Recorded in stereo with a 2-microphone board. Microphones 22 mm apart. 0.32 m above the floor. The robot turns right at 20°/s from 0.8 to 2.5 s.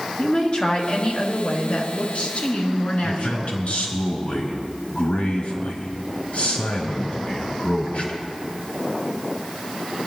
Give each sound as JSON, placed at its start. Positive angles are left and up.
{"t": 0.2, "sound": "a woman speaking", "azimuth_deg": 35, "distance_m": 3.5}
{"t": 3.0, "sound": "a man speaking", "side_deg": 65, "distance_m": 4.0}